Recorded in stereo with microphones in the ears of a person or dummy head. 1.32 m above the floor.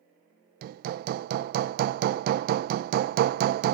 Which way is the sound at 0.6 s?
55° right (ahead or behind).